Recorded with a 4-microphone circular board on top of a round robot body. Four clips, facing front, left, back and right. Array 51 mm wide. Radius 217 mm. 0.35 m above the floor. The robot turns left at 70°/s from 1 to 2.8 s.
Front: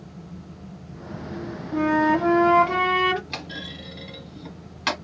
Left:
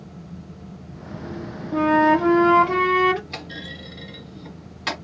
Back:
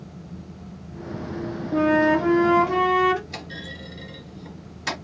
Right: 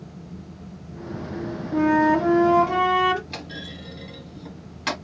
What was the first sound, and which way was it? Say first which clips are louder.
A flute: left 2 dB, back 1 dB; 120° left.